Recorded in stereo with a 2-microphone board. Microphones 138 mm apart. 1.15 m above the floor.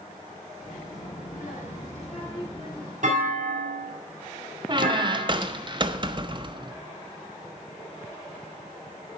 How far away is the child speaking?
About 2.5 m.